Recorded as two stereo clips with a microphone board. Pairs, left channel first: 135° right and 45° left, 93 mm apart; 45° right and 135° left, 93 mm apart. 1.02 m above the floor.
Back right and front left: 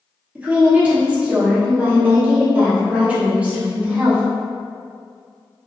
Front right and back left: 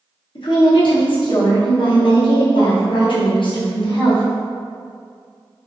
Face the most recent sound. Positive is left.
turn(degrees=-30)